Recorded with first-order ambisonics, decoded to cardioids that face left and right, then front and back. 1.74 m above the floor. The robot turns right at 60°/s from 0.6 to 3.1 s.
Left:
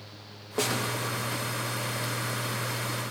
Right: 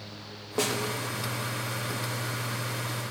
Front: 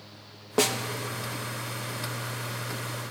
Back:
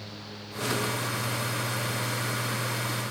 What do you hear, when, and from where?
0.6 s a snare drum: 5° right, 1.1 m; by 0.8 s 5° left, 1.1 m